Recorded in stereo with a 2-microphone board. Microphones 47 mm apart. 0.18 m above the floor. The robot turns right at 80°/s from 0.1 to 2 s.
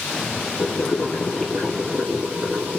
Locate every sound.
0.6 s boiling: 105° left, 1.5 m; by 2.8 s 145° right, 1.5 m